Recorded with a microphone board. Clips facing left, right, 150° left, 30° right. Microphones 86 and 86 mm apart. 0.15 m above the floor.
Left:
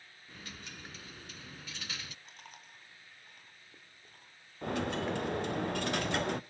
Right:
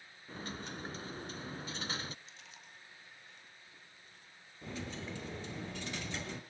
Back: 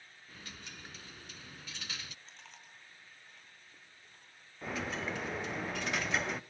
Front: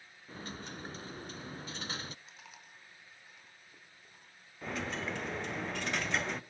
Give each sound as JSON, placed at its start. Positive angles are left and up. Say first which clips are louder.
{"t": 0.3, "sound": "a dropped coin", "louder": "right 6 dB, front 8 dB", "azimuth_deg": -55, "distance_m": 0.6}
{"t": 2.2, "sound": "chewing", "louder": "left 3 dB, front 1 dB", "azimuth_deg": 55, "distance_m": 3.5}
{"t": 4.6, "sound": "a dropped coin", "louder": "left 10 dB, even", "azimuth_deg": 60, "distance_m": 0.8}